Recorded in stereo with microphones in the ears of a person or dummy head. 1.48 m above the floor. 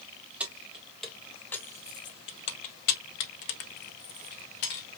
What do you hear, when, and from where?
0.4 s keys jangling: 5° right (ahead or behind), 1.4 m; by 4.9 s 50° left (ahead or behind), 1.5 m